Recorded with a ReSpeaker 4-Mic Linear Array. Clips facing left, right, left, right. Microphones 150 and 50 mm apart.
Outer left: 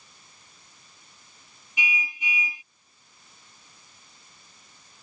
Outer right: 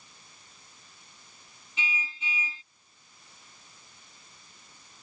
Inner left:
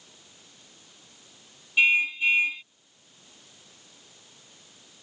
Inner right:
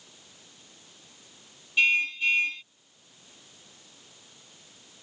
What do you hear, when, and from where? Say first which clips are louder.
1.8 s a car horn: outer left 4 dB, inner left 2 dB; 15° left (ahead or behind)